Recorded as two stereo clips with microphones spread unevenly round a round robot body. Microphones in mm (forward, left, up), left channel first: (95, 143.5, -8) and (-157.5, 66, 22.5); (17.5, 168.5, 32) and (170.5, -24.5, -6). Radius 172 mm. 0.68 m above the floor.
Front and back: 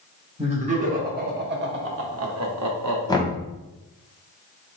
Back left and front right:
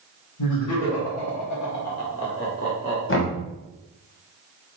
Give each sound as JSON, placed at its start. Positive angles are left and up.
{"t": 0.4, "sound": "laughter", "azimuth_deg": 125, "distance_m": 2.0}
{"t": 3.1, "sound": "knocking", "azimuth_deg": 90, "distance_m": 1.3}